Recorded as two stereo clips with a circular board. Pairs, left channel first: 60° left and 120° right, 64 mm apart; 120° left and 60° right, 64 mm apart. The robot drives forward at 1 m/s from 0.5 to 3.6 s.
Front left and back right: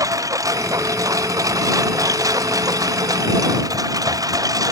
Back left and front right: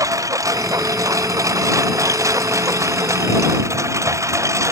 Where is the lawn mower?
95° right; by 4.7 s 100° right.